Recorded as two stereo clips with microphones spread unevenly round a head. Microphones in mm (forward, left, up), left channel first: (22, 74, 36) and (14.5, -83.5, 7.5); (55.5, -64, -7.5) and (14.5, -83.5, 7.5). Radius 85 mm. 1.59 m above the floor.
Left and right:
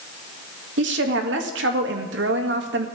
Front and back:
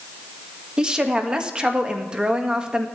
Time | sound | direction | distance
0.8 | a woman speaking | 90° right | 1.7 m